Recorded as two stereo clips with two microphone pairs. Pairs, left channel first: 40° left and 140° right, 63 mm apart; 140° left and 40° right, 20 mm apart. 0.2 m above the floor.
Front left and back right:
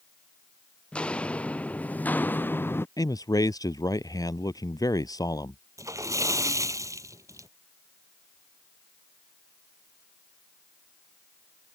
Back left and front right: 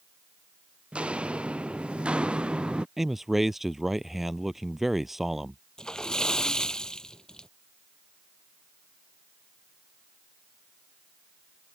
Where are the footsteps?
30° right; by 2.9 s 10° right.